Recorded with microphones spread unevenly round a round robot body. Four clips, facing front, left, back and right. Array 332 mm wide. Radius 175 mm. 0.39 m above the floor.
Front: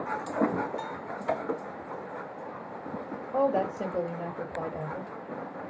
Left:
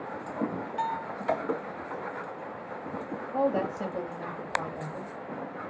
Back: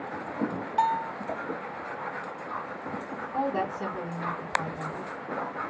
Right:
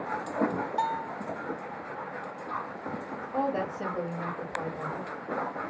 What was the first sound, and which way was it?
A bell, 120° right.